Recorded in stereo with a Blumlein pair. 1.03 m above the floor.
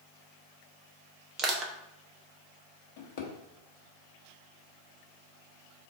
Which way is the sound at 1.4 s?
25° right.